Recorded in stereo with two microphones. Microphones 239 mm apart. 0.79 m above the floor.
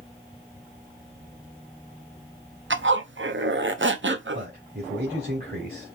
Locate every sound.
2.7 s a zipper: 55° right (ahead or behind), 0.6 m
4.3 s a man speaking: 45° right (ahead or behind), 2.5 m